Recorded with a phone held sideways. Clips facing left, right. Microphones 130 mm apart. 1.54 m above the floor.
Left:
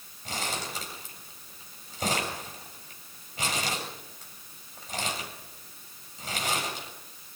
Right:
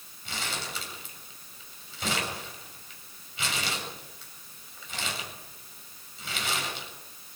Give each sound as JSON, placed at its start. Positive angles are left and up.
{"t": 0.2, "sound": "crumpling", "side_deg": 40, "distance_m": 7.0}